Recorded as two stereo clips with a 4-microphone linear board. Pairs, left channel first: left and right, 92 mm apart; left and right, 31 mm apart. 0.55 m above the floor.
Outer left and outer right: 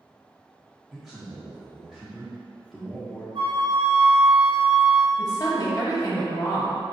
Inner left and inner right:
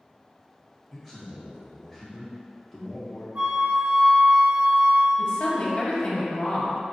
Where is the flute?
65° right (ahead or behind), 1.0 m.